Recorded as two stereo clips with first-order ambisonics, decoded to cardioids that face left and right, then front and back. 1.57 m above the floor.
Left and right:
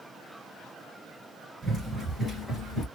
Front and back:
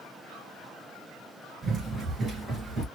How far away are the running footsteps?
About 1.6 m.